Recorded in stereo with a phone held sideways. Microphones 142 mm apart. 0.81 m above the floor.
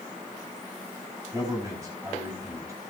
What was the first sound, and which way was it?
A man speaking, 20° right (ahead or behind).